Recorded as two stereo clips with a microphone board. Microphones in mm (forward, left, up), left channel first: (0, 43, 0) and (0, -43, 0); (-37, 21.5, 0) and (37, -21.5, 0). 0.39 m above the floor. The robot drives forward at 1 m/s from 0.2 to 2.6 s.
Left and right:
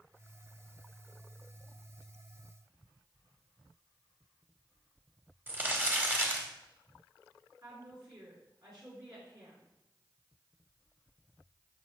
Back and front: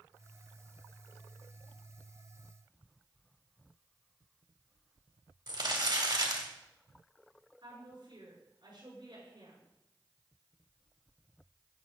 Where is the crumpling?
25° right, 1.6 m.